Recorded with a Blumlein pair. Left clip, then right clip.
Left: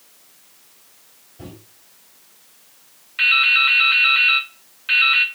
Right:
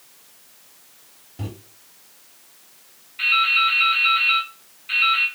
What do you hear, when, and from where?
1.4 s a microwave: 50° right, 1.3 m
3.2 s dripping: 45° left, 0.7 m